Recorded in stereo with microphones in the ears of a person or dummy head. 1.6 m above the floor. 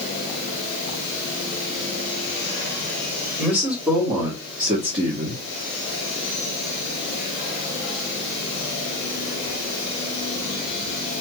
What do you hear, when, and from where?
3.4 s a man speaking: 10° right (ahead or behind), 1.6 m; by 5.4 s 50° right (ahead or behind), 1.0 m